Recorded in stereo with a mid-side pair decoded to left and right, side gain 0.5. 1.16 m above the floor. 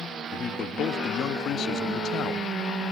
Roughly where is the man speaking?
Ahead left.